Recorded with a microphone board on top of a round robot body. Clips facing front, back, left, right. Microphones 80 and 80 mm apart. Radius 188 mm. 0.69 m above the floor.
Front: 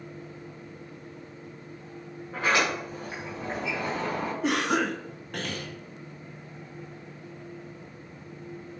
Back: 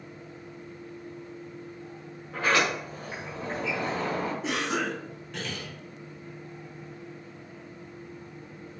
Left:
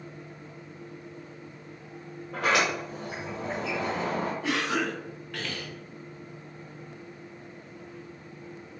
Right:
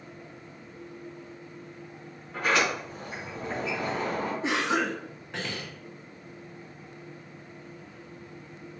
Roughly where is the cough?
Ahead right.